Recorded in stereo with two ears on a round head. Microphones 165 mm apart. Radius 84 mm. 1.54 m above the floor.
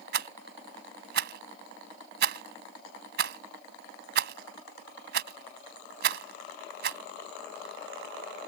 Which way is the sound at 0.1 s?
60° right (ahead or behind).